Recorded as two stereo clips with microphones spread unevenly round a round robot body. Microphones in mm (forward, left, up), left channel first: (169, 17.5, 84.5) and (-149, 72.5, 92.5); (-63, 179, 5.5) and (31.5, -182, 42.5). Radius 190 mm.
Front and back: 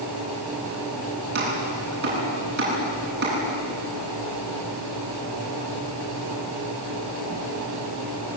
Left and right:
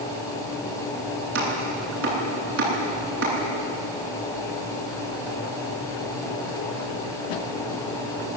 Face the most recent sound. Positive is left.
turn(degrees=-130)